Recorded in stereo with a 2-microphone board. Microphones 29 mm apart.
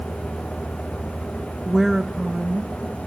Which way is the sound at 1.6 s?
5° left (ahead or behind).